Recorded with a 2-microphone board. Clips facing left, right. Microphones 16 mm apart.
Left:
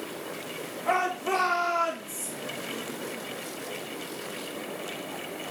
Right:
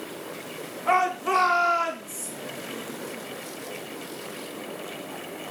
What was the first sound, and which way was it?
A shout, 45° right (ahead or behind).